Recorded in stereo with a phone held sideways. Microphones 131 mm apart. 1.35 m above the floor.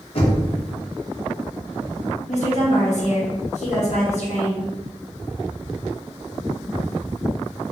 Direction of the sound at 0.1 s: 45° left (ahead or behind).